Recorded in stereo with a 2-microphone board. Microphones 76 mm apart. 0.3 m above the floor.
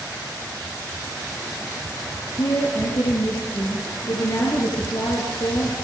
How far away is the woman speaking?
About 4.5 m.